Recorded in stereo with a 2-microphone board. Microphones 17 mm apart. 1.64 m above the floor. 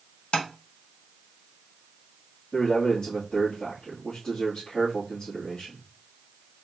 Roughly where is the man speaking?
Left.